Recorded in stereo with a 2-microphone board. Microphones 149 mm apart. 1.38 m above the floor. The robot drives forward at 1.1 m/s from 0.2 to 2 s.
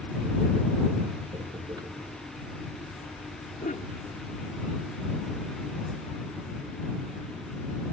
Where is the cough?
70° left (ahead or behind).